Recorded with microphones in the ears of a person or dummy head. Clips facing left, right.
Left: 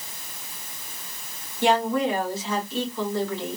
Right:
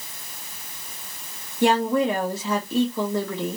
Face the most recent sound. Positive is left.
turn(degrees=-50)  # may be behind; listen again after turning